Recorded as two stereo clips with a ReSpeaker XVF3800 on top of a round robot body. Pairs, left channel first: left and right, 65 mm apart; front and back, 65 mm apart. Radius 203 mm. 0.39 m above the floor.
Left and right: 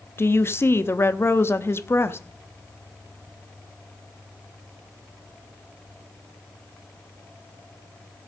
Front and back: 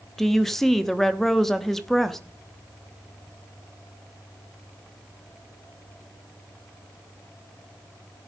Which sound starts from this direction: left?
A woman speaking, at 0.2 s.